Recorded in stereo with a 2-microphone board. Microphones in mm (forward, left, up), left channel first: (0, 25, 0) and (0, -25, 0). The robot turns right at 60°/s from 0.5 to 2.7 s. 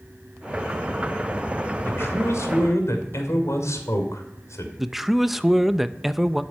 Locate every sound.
1.8 s a man speaking: 50° left, 2.5 m; by 4.7 s 100° left, 2.5 m
4.8 s a man speaking: 5° right (ahead or behind), 0.7 m